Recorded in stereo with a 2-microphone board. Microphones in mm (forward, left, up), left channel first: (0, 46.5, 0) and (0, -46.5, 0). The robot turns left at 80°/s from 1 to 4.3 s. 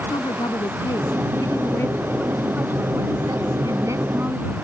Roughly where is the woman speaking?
Left.